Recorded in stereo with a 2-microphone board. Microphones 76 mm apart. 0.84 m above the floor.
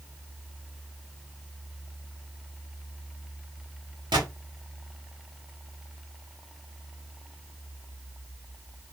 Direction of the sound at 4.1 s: 80° right.